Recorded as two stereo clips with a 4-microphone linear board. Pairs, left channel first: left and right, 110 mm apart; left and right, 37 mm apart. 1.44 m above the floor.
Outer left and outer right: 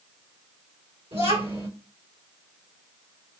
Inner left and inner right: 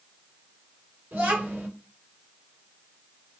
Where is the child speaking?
70° right (ahead or behind), 3 m.